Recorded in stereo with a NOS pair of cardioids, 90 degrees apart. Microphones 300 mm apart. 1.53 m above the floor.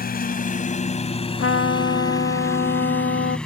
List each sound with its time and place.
0.0 s a lawn mower: 35° left; by 3.5 s 5° left
1.4 s a trumpet: 45° left